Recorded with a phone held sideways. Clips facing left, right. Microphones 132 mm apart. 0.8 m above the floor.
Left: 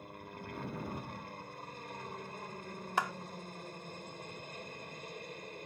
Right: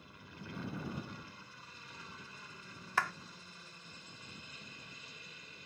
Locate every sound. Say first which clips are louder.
0.0 s a helicopter: left 6 dB; 50° left (ahead or behind)
3.0 s a clap: left 1 dB; 20° left (ahead or behind)